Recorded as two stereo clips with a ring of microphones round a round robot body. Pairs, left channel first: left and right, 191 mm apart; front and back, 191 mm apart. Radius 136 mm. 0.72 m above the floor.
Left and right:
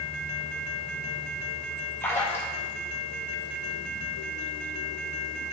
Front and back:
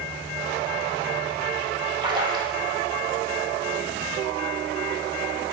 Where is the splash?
150° left, 1.0 m.